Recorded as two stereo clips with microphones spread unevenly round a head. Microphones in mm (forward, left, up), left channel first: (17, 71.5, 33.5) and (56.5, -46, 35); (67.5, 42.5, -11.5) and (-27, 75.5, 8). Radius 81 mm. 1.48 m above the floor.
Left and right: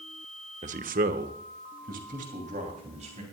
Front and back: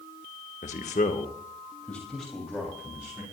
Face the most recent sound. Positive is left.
turn(degrees=-120)